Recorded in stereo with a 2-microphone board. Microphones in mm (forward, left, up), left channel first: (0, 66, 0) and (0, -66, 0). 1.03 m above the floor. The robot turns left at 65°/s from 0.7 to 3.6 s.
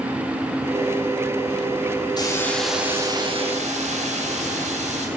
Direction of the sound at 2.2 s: 30° left.